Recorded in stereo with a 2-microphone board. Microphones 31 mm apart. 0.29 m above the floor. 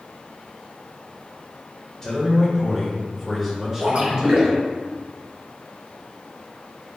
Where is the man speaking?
15° left (ahead or behind), 1.6 m; by 4.6 s 30° right (ahead or behind), 1.4 m.